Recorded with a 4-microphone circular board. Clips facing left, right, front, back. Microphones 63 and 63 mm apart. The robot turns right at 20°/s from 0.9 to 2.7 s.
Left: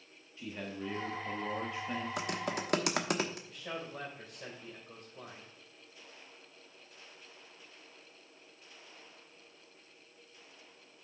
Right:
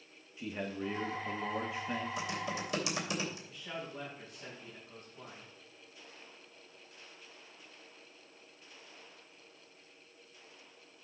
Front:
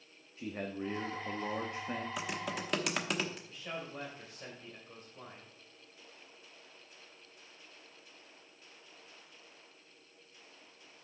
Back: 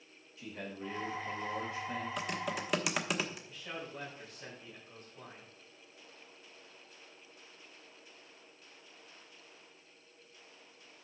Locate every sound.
0.4 s a man speaking: 25° right, 1.1 m; by 2.1 s straight ahead, 1.1 m
2.2 s typing on a keyboard: 85° left, 1.1 m; by 3.4 s 95° left, 1.1 m
3.5 s a man speaking: 65° left, 2.5 m